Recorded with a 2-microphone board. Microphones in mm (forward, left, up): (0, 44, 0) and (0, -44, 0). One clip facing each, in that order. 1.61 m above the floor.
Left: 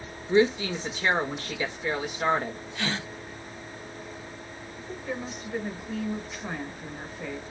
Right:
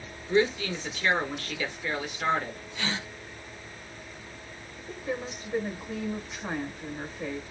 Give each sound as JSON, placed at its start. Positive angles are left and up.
{"t": 0.3, "sound": "a woman speaking", "side_deg": 25, "distance_m": 1.4}
{"t": 2.8, "sound": "a gasp", "side_deg": 50, "distance_m": 3.0}
{"t": 4.8, "sound": "a woman speaking", "side_deg": -15, "distance_m": 1.9}